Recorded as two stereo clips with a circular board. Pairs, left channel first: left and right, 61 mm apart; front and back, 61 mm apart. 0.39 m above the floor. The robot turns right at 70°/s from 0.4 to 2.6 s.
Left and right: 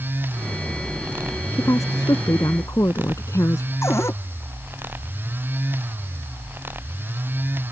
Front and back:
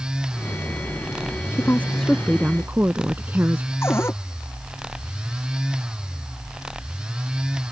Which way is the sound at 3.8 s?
50° left.